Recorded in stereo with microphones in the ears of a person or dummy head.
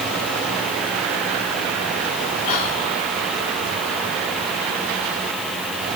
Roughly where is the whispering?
Left.